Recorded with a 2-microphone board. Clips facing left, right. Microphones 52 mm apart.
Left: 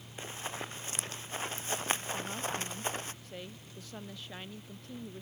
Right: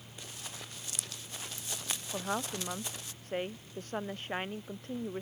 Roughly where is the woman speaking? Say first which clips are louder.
Right 1 dB; right.